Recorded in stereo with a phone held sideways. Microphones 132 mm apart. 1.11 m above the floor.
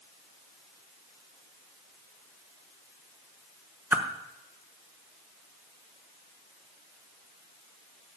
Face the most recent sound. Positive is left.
turn(degrees=-15)  # may be behind; listen again after turning